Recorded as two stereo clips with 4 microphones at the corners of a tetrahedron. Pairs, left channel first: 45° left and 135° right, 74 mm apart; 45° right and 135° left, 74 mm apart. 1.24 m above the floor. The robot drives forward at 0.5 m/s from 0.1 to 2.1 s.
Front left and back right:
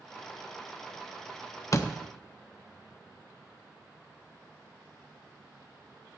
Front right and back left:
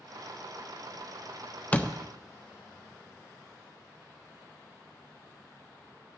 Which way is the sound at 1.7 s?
20° left.